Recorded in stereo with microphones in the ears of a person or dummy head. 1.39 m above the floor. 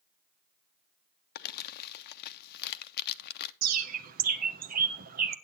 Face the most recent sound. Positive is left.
turn(degrees=-40)  # may be behind; listen again after turning